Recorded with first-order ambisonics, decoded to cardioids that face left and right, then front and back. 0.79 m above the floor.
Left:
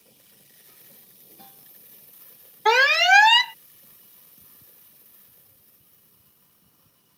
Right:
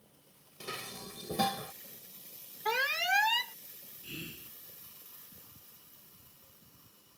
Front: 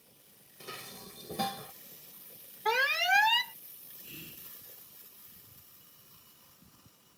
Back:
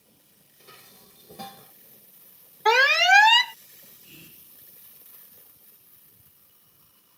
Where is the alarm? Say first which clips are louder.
Left 14 dB, back 10 dB; 130° left.